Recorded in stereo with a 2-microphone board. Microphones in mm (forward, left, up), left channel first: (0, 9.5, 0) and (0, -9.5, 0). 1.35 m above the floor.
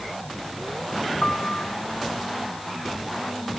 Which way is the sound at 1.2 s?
85° left.